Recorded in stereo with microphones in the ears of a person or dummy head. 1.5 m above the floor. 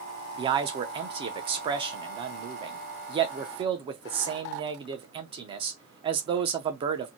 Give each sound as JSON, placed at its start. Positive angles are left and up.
{"t": 0.4, "sound": "a man speaking", "side_deg": -35, "distance_m": 0.6}